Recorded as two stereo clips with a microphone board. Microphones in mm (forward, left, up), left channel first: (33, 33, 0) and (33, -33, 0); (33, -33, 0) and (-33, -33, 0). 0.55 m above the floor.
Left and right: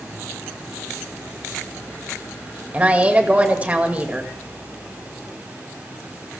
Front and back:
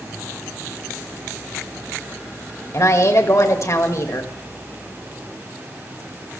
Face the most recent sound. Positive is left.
turn(degrees=-25)